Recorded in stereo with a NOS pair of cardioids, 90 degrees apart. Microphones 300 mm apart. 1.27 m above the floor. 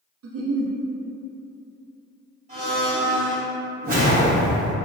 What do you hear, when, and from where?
0.2 s a giggle: 55° right, 0.6 m
2.5 s a blender: 25° right, 1.9 m
3.8 s a whoosh: 30° right, 1.2 m